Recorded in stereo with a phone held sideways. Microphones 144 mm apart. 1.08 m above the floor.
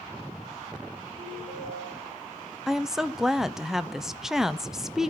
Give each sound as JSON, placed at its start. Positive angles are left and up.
{"t": 1.2, "sound": "a ringtone", "side_deg": 60, "distance_m": 8.0}
{"t": 2.7, "sound": "a woman speaking", "side_deg": -5, "distance_m": 0.7}